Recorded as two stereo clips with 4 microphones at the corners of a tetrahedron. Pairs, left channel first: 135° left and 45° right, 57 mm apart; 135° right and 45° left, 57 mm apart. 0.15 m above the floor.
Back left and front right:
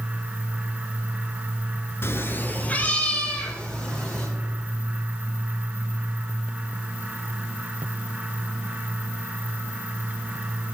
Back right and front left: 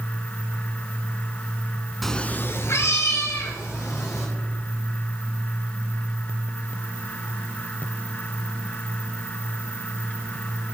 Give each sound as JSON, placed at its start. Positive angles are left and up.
{"t": 2.0, "sound": "a cat meowing", "azimuth_deg": 135, "distance_m": 0.6}